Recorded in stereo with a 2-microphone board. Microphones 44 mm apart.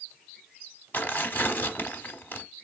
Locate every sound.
0.9 s tearing paper: 45° left (ahead or behind), 0.9 m